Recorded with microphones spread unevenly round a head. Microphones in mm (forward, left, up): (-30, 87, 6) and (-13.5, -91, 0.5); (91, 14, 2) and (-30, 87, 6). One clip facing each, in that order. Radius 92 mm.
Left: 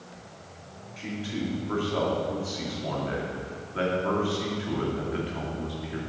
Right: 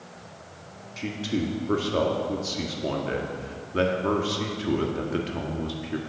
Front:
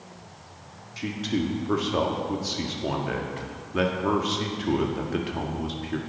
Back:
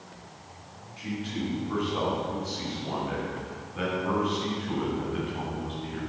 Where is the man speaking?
40° right, 1.7 m.